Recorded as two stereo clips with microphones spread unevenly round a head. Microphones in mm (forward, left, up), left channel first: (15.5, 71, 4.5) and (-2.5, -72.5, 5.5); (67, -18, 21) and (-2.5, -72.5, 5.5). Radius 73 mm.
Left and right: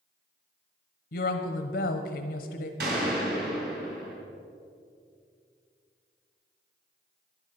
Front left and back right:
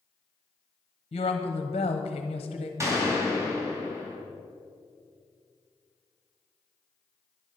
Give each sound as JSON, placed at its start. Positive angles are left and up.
{"t": 1.1, "sound": "a woman speaking", "azimuth_deg": 75, "distance_m": 0.9}
{"t": 2.8, "sound": "a gunshot", "azimuth_deg": -85, "distance_m": 3.5}